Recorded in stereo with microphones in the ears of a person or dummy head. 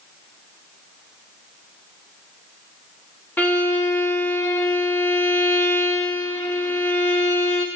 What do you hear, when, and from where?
3.4 s a violin: 5° left (ahead or behind), 1.4 m